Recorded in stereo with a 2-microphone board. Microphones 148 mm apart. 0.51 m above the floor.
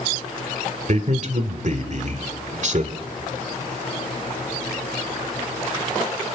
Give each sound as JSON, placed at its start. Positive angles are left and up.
{"t": 0.9, "sound": "a man speaking", "side_deg": -55, "distance_m": 2.0}